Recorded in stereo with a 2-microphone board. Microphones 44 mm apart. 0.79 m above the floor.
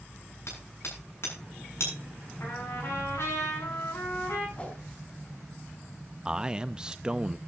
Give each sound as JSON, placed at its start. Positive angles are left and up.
{"t": 0.5, "sound": "hammering", "side_deg": 60, "distance_m": 8.0}
{"t": 2.4, "sound": "a trumpet", "side_deg": 60, "distance_m": 8.0}
{"t": 4.6, "sound": "a whoosh", "side_deg": 25, "distance_m": 3.0}
{"t": 6.2, "sound": "a man speaking", "side_deg": -15, "distance_m": 0.5}